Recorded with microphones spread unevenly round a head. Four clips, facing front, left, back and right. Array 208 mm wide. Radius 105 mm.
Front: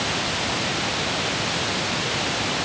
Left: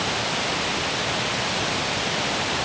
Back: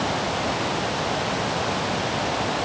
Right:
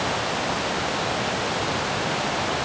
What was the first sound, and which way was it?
Only background noise.